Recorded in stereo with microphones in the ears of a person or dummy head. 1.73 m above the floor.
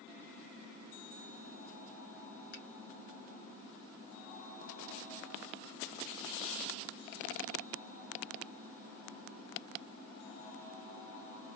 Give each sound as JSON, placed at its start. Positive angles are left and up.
{"t": 2.5, "sound": "a finger snap", "side_deg": 55, "distance_m": 2.0}